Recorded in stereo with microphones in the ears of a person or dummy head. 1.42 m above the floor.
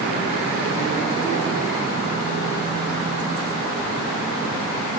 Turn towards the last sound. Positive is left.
No sound to turn to.